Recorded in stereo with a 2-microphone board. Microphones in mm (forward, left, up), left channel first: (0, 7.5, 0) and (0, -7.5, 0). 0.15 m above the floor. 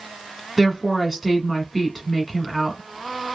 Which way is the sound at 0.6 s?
5° right (ahead or behind).